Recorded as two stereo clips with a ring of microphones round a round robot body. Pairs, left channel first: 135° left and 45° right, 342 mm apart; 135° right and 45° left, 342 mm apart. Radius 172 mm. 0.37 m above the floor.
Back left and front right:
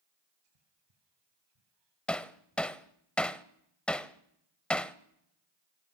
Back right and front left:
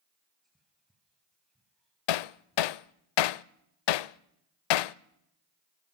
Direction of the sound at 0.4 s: 45° right.